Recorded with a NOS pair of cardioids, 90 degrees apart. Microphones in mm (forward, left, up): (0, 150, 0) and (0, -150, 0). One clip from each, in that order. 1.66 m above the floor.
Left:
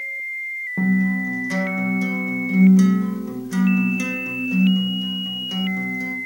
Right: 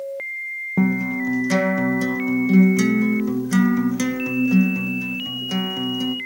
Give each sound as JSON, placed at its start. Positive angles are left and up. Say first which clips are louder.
{"t": 0.8, "sound": "a guitar", "louder": "even", "azimuth_deg": -40, "distance_m": 1.2}